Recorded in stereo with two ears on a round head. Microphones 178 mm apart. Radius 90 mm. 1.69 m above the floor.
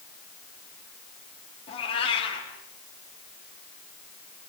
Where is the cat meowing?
30° left (ahead or behind), 7 m.